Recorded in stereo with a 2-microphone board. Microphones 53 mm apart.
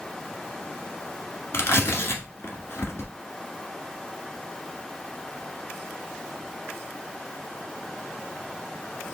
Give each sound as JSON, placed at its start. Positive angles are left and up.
{"t": 1.5, "sound": "tearing paper", "side_deg": 55, "distance_m": 1.1}